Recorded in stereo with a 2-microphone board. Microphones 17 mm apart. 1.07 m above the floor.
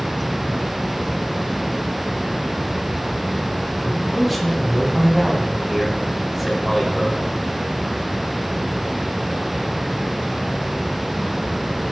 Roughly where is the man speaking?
Centre.